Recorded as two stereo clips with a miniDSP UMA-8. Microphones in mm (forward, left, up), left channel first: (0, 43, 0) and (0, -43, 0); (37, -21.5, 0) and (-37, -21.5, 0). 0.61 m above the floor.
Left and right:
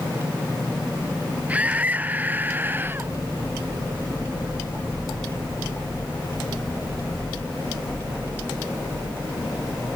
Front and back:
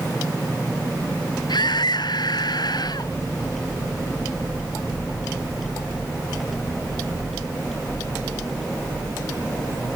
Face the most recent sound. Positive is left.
turn(degrees=-25)